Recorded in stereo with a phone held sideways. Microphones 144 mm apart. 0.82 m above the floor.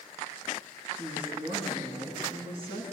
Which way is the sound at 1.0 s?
40° right (ahead or behind).